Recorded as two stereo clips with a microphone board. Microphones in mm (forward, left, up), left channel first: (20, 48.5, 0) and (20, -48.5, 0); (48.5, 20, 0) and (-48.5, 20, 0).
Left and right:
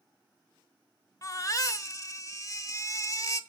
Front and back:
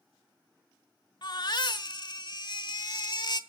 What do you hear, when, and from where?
1.2 s a baby crying: 35° left, 1.1 m